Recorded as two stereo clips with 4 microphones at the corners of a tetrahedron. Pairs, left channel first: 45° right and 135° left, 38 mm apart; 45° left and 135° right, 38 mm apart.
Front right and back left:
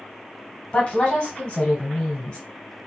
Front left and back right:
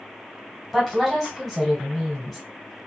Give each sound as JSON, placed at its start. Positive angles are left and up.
{"t": 0.7, "sound": "a woman speaking", "azimuth_deg": -40, "distance_m": 1.3}